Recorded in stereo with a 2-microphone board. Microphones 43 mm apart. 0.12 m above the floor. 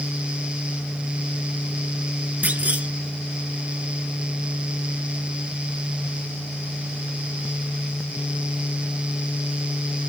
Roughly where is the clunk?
Right.